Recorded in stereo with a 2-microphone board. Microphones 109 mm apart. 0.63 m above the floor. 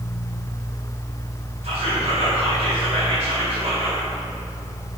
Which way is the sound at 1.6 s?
70° right (ahead or behind).